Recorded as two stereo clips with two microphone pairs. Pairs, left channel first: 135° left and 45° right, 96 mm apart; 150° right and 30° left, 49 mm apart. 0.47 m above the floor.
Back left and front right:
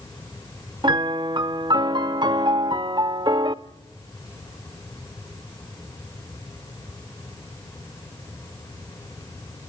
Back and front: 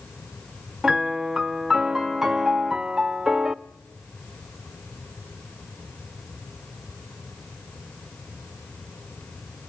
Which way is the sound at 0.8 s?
50° right.